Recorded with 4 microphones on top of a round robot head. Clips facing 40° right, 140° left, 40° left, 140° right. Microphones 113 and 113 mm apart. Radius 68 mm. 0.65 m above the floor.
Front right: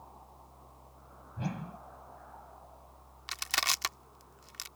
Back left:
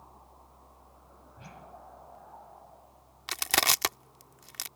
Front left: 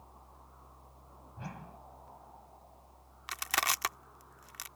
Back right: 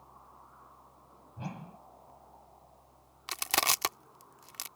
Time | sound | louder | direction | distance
1.4 | a whoosh | front right 10 dB, back right 3 dB | 75° right | ?
3.3 | crushing | back left 6 dB, back right 2 dB | 165° left | ?